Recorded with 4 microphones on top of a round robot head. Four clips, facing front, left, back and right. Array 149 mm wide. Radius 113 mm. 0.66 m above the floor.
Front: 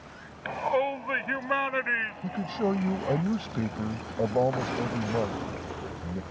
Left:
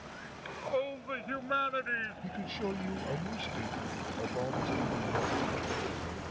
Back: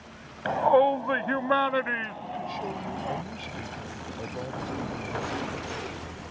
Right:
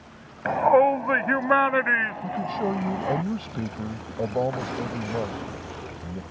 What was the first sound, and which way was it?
A shout, 115° right.